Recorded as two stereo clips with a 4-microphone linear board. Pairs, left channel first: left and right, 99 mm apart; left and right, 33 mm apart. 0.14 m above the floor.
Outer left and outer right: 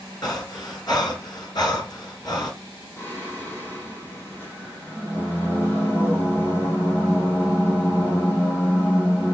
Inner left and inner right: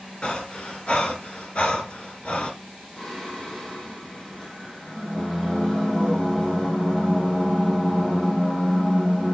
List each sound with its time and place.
0.2 s breathing: 45° left (ahead or behind), 2.5 m
3.0 s singing: 20° left (ahead or behind), 4 m